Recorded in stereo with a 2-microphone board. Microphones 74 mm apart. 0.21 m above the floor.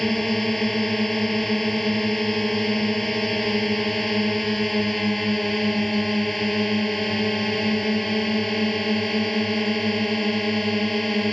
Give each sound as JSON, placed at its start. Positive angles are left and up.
{"t": 0.0, "sound": "a drone", "side_deg": 0}